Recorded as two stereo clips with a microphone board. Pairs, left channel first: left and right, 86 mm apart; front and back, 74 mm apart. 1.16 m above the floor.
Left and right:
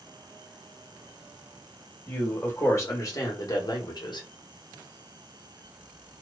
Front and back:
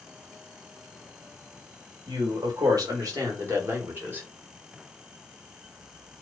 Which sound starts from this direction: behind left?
A man speaking, at 2.1 s.